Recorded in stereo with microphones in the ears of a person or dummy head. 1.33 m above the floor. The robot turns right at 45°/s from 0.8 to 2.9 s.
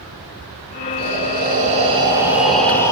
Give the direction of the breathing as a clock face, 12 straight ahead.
2 o'clock.